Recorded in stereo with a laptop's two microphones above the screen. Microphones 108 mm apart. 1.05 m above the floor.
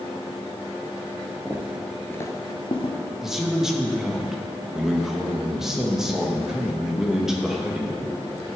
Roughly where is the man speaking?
Centre.